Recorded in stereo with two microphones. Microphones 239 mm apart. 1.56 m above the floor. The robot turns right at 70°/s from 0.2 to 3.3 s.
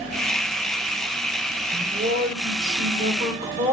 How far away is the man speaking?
About 6.5 m.